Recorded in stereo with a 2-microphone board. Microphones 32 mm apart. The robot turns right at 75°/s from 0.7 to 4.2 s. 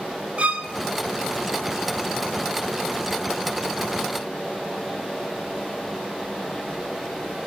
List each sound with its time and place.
0.4 s a violin: 50° right (ahead or behind), 0.6 m